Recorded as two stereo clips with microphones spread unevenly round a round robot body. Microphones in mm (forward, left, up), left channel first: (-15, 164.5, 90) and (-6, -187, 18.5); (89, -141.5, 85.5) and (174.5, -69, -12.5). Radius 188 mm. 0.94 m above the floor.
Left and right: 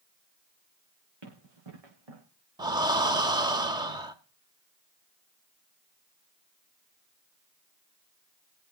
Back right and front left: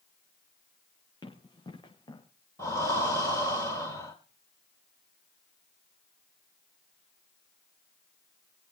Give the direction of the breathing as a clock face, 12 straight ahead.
6 o'clock.